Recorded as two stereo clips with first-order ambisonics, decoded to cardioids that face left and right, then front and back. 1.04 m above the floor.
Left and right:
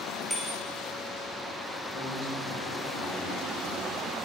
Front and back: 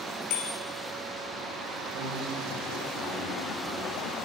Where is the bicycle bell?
5° left, 5 m.